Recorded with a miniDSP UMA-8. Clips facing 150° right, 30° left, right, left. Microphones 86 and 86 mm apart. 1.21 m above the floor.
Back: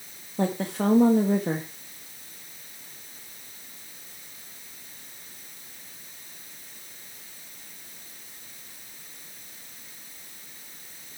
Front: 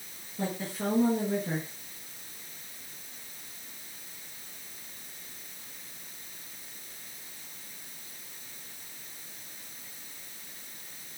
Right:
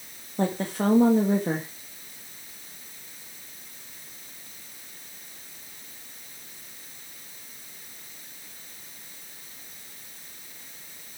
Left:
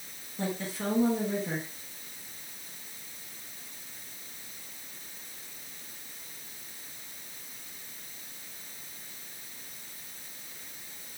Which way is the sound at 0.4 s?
125° right.